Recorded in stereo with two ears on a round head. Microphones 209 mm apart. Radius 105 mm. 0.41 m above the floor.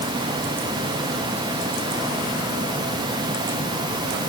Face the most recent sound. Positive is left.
No sound to turn to.